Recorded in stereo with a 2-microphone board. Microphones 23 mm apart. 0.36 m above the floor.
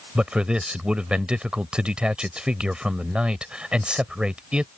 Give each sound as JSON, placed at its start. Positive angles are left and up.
{"t": 0.1, "sound": "a man speaking", "side_deg": -45}